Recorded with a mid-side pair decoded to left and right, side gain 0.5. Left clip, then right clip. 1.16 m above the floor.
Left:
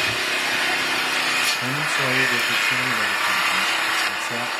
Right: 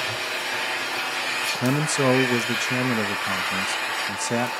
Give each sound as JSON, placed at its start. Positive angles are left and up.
{"t": 0.0, "sound": "an engine running", "azimuth_deg": 55, "distance_m": 1.5}
{"t": 1.5, "sound": "a man speaking", "azimuth_deg": -45, "distance_m": 0.8}